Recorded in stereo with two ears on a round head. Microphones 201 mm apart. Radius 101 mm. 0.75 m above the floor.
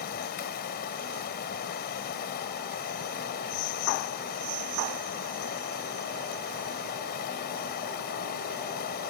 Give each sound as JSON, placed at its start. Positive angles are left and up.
{"t": 0.0, "sound": "running water", "side_deg": 45}